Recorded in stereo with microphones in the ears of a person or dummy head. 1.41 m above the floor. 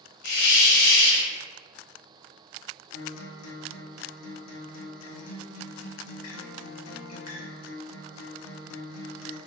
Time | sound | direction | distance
0.2 | a hiss | 85° left | 1.5 m
2.9 | a guitar | 75° left (ahead or behind) | 1.0 m